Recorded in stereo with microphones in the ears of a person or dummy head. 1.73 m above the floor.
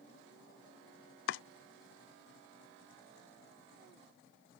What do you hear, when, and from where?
1.3 s chopping: 70° left (ahead or behind)